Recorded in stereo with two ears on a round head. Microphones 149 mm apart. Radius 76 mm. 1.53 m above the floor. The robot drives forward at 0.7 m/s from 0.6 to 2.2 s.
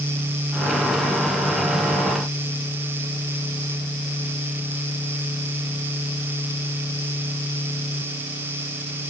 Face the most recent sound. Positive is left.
No sound to turn to.